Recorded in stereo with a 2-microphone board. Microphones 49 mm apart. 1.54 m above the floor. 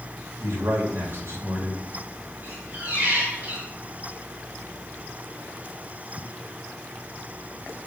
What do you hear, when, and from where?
0.4 s a man speaking: 65° right (ahead or behind), 2.5 m
2.4 s a squeak: 35° right (ahead or behind), 3 m